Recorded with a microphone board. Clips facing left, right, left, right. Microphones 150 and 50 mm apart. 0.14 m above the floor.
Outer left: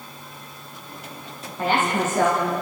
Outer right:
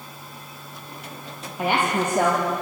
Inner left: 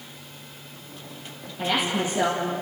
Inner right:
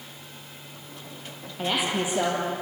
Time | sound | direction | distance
1.6 | a woman speaking | 15° right (ahead or behind) | 4 m